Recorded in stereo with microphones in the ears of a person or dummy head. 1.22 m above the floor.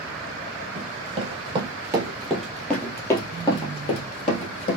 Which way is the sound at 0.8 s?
45° right (ahead or behind).